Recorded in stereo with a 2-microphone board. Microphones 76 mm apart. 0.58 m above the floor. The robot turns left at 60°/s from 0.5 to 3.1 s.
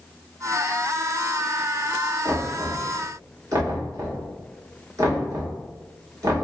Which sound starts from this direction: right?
Knocking, at 2.2 s.